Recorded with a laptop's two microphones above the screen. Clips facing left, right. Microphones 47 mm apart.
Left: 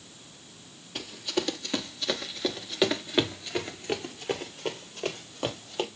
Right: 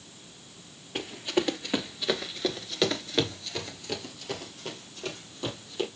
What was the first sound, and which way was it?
Running footsteps, 25° right (ahead or behind).